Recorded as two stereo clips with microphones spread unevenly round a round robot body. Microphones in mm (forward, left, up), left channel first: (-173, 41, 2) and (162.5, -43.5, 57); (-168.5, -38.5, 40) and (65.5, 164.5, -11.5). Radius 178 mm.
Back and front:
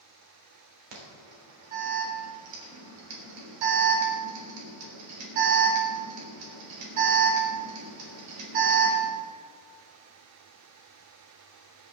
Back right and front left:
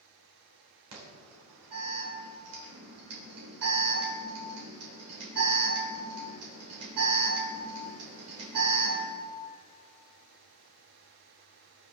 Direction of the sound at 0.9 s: 5° right.